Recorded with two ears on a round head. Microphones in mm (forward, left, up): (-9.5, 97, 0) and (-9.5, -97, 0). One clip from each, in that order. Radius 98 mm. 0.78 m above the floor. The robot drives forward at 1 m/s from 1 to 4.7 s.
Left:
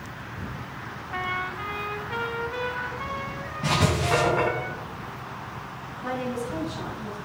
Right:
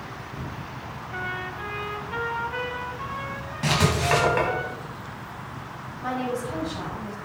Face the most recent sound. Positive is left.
turn(degrees=-80)